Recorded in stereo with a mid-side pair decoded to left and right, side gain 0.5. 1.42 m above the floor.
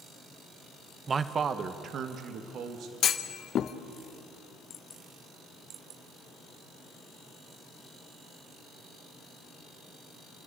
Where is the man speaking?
35° right, 0.9 m; by 2.9 s 65° right, 2.0 m.